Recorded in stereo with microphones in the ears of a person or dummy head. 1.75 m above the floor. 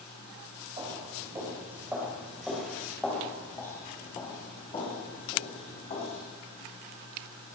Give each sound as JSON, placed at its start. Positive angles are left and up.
{"t": 0.8, "sound": "footsteps", "side_deg": -30, "distance_m": 3.5}